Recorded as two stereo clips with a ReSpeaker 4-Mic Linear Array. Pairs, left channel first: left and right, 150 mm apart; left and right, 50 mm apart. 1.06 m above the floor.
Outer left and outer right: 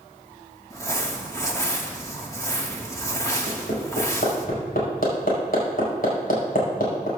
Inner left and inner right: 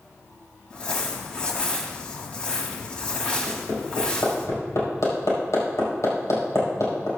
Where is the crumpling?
20° left (ahead or behind), 1.6 m.